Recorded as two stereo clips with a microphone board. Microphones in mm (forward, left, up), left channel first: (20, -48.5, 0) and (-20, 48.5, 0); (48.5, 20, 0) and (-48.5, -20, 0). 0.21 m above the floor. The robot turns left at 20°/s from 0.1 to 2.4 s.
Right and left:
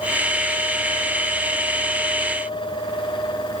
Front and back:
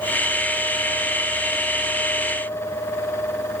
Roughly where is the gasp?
No gasp in this recording.